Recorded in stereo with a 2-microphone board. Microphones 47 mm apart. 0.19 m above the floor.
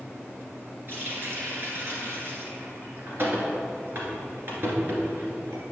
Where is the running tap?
50° right (ahead or behind), 2.0 m.